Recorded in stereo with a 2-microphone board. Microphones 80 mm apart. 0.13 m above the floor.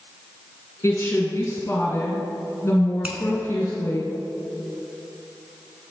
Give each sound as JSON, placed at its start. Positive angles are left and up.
{"t": 0.8, "sound": "a woman speaking", "side_deg": 30, "distance_m": 1.5}
{"t": 3.0, "sound": "a finger snap", "side_deg": -20, "distance_m": 0.9}